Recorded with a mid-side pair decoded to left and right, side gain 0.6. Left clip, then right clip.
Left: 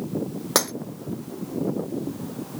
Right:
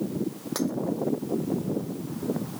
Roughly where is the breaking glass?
Ahead left.